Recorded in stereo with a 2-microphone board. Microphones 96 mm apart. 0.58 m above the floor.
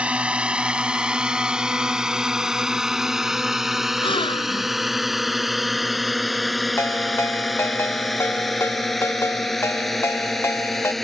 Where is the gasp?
65° left (ahead or behind).